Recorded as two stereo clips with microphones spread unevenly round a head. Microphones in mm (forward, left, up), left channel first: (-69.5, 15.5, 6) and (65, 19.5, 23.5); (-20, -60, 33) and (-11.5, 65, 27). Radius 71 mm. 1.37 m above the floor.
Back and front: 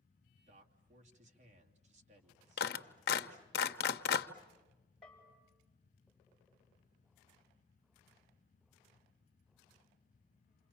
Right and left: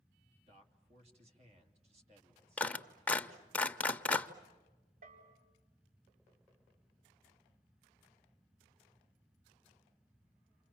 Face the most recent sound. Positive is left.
turn(degrees=95)